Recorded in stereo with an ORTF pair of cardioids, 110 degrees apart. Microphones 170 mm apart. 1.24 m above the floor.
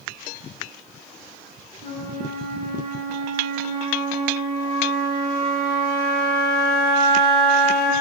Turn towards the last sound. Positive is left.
turn(degrees=-70)